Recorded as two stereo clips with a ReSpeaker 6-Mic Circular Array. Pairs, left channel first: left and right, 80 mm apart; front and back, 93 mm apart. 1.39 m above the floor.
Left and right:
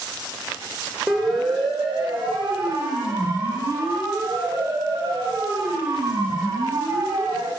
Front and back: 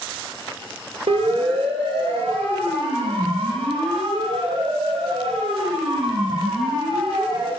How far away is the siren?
About 4.5 m.